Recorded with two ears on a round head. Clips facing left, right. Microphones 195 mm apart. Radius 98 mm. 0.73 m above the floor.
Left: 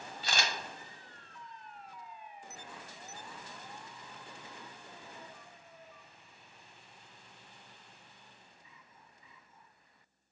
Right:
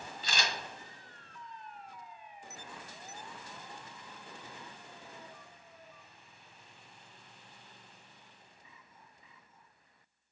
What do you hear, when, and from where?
0.2 s a camera shutter: 50° left (ahead or behind), 1.0 m